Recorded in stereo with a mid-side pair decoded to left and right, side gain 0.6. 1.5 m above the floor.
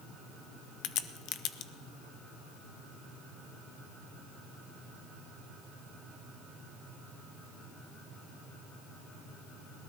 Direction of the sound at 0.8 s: 65° left.